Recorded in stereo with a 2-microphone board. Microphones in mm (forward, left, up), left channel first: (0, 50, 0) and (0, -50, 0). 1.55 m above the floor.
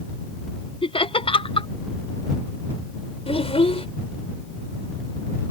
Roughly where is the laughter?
Left.